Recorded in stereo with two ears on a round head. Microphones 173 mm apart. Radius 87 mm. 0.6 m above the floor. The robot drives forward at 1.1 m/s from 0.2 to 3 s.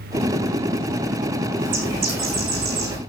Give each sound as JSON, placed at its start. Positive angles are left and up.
{"t": 1.6, "sound": "a bird", "side_deg": -70, "distance_m": 8.0}